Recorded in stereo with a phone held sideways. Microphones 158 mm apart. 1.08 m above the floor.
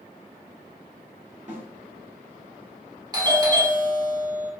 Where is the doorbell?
25° right (ahead or behind), 0.9 m.